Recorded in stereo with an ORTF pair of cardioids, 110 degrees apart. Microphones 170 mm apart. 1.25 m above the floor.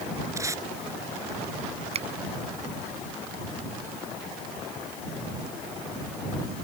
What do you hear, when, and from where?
0.4 s tape being pulled: 20° right
1.9 s a finger snap: 40° right